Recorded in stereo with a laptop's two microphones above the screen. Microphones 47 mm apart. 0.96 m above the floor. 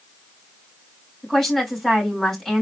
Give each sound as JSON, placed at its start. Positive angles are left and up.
{"t": 1.2, "sound": "a woman speaking", "side_deg": 5, "distance_m": 4.0}